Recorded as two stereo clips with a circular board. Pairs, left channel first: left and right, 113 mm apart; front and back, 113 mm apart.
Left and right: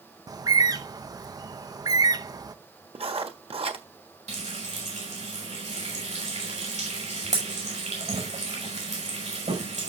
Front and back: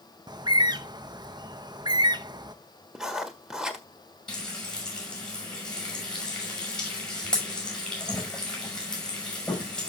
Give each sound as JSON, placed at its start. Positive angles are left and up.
{"t": 0.3, "sound": "a bird", "azimuth_deg": -140, "distance_m": 0.6}
{"t": 3.0, "sound": "writing", "azimuth_deg": -95, "distance_m": 1.4}
{"t": 4.3, "sound": "frying", "azimuth_deg": -85, "distance_m": 6.0}